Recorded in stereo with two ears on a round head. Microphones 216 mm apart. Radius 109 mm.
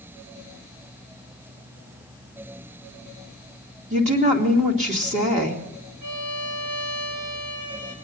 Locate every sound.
3.9 s a woman speaking: 30° right (ahead or behind), 2.5 m
6.0 s a violin: 70° right (ahead or behind), 5 m